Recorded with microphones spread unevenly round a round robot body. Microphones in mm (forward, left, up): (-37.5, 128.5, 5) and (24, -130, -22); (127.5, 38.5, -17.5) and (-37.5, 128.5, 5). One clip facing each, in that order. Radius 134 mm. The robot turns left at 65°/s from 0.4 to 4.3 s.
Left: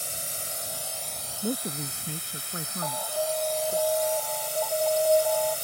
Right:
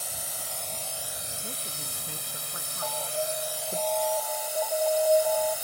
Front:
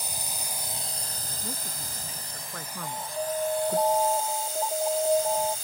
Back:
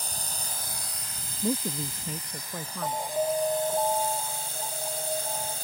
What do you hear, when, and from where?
0.0 s a drone: 45° left; by 5.7 s 155° left
1.4 s a man speaking: 155° left; by 3.8 s 5° right
2.8 s an alarm: 110° left; by 5.6 s 15° left